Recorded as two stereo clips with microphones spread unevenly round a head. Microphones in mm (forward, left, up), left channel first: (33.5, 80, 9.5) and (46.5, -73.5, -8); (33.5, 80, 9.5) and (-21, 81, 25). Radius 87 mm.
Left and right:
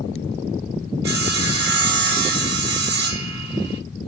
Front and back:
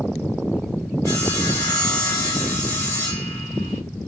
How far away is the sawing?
About 0.7 m.